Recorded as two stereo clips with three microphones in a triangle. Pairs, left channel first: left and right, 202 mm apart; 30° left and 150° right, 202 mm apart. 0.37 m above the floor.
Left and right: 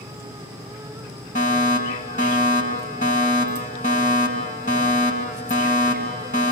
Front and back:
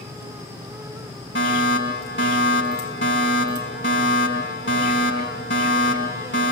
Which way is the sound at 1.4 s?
40° left.